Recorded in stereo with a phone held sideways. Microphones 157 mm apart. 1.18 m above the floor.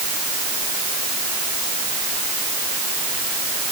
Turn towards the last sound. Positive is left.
No sound to turn to.